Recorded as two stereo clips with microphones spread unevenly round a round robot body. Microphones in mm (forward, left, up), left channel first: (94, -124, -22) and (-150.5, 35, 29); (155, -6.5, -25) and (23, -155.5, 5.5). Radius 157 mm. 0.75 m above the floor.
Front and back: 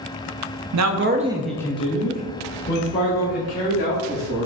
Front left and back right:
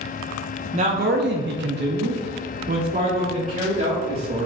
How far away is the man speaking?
About 0.5 m.